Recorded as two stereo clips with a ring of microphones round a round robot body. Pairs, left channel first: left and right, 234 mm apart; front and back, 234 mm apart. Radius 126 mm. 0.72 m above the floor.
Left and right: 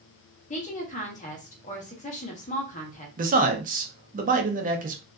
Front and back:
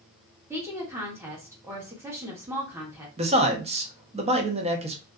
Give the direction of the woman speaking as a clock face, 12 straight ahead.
8 o'clock.